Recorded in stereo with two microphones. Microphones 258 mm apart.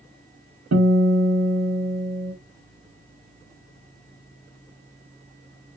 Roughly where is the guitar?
Right.